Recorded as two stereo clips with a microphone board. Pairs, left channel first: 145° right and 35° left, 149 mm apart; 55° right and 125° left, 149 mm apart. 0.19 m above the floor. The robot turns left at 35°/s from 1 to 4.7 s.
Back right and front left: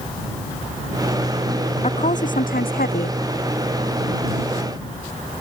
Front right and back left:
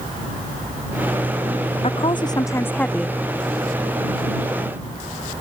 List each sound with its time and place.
1.8 s a woman speaking: 100° right; by 3.2 s 150° right